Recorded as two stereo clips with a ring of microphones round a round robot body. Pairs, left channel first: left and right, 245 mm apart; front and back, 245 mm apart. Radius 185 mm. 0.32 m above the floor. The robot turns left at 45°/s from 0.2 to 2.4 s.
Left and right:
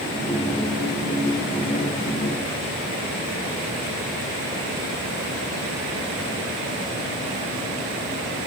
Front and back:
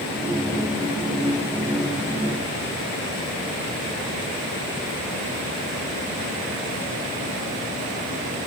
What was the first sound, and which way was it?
Only background noise.